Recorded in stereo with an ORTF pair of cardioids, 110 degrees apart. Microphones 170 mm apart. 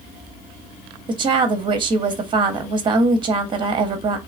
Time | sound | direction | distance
1.1 | a woman speaking | 30° right | 0.6 m